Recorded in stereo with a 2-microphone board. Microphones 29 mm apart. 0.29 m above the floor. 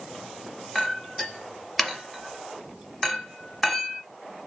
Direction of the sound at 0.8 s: 10° left (ahead or behind).